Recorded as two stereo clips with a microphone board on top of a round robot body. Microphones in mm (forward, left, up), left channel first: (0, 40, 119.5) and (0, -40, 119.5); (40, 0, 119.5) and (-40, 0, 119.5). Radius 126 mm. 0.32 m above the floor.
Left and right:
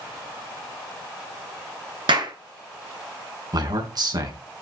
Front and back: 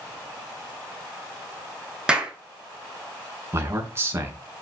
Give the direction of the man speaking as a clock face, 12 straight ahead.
4 o'clock.